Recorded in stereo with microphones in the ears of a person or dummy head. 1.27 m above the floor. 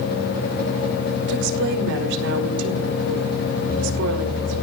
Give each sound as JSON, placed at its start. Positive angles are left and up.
{"t": 1.3, "sound": "a woman speaking", "side_deg": -70, "distance_m": 5.0}